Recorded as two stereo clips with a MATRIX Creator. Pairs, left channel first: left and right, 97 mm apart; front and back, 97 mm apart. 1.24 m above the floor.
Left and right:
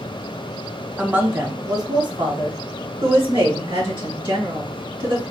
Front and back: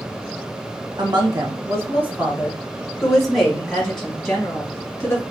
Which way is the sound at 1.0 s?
165° right.